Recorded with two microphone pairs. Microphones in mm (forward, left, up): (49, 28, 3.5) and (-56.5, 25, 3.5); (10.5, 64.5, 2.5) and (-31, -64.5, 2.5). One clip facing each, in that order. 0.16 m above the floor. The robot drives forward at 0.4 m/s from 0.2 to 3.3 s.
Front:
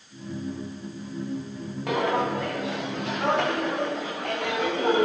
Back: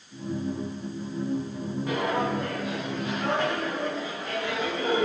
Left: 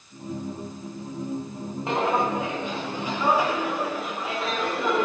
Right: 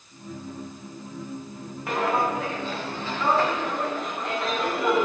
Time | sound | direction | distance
1.9 | footsteps | 5° left | 5.5 m